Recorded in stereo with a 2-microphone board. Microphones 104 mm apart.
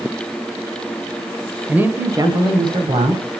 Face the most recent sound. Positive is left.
turn(degrees=-60)  # may be behind; listen again after turning